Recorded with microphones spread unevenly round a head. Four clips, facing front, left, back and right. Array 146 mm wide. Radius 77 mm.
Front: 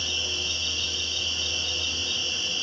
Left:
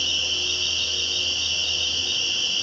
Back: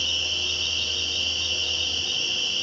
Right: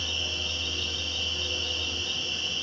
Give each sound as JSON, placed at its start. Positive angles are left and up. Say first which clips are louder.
{"t": 0.0, "sound": "an insect", "louder": "left 3 dB, back 1 dB", "azimuth_deg": 140, "distance_m": 2.5}